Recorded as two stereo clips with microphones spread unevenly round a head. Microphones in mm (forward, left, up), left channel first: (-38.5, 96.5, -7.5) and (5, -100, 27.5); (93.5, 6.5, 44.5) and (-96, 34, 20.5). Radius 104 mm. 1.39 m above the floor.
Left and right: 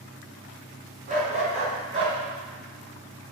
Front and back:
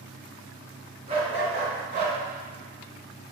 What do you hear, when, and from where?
1.1 s a dog barking: 125° right, 4 m; by 2.2 s 135° right, 3 m